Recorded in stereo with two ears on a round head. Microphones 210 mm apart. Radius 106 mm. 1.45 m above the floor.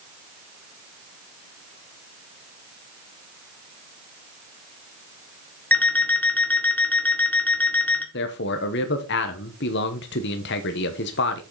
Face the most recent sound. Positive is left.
turn(degrees=50)  # may be behind; listen again after turning